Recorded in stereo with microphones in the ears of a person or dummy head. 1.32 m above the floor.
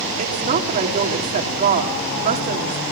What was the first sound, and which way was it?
A woman speaking, 50° right (ahead or behind).